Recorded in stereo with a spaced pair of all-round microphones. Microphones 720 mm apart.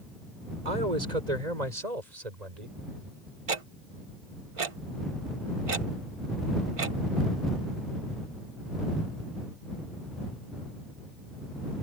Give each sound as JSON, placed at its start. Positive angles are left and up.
{"t": 0.7, "sound": "a man speaking", "side_deg": -80}
{"t": 3.5, "sound": "ticking", "side_deg": -50}